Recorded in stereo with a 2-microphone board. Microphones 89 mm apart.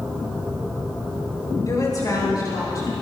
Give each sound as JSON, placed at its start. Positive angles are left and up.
{"t": 1.7, "sound": "a woman speaking", "side_deg": 40, "distance_m": 7.5}